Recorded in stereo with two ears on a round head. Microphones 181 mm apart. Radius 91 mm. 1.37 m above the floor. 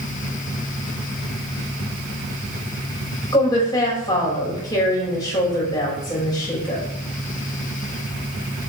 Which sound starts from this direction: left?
A woman speaking, at 3.3 s.